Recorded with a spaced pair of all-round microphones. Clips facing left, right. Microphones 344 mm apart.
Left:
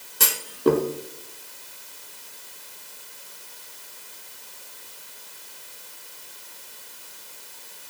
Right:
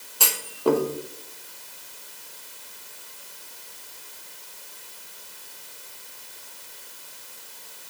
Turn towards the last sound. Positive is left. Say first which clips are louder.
# left 3 dB
turn(degrees=25)  # may be behind; listen again after turning